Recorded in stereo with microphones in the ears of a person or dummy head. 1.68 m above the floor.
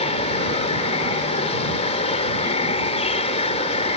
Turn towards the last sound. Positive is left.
turn(degrees=30)  # may be behind; listen again after turning